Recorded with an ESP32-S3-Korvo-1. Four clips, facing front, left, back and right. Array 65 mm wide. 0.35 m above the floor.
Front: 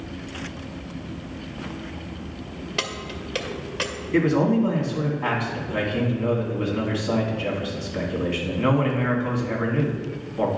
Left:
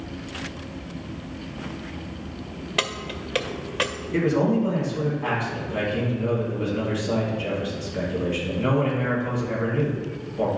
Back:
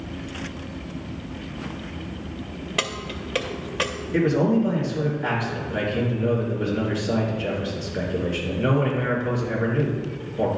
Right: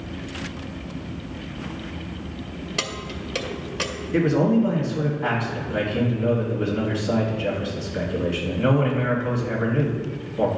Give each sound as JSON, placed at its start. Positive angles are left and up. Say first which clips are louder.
{"t": 2.8, "sound": "keys jangling", "louder": "left 4 dB, back 2 dB", "azimuth_deg": 115, "distance_m": 0.6}
{"t": 4.1, "sound": "a man speaking", "louder": "right 2 dB, even", "azimuth_deg": -10, "distance_m": 2.5}